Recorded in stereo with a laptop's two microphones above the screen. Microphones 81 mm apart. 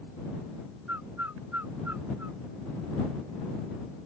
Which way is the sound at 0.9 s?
20° right (ahead or behind).